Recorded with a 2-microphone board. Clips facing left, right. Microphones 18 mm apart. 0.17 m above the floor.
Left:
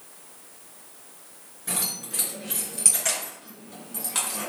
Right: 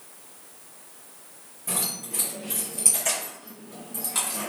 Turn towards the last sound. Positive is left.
turn(degrees=15)  # may be behind; listen again after turning